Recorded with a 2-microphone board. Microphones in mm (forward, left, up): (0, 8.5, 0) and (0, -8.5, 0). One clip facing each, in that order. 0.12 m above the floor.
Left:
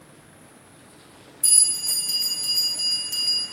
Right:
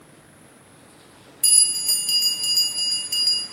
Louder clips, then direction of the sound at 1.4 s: Right 2 dB; 55° right (ahead or behind).